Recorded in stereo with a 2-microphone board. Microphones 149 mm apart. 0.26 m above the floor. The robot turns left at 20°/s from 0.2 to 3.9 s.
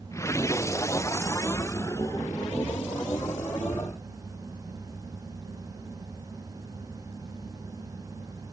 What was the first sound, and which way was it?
Only background noise.